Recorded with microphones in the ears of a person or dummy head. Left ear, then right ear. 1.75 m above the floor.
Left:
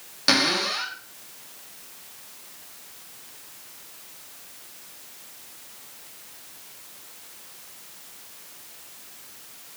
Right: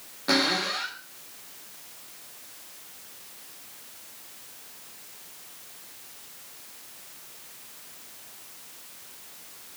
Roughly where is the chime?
I don't hear a chime.